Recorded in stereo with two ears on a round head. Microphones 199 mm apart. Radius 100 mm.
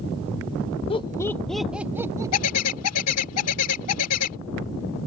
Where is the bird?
80° left.